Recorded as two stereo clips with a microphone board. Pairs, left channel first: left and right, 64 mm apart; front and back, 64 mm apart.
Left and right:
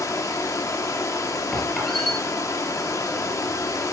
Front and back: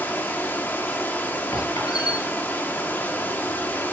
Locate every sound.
0.0 s running water: 60° left, 1.1 m
1.5 s a squeak: 5° left, 5.5 m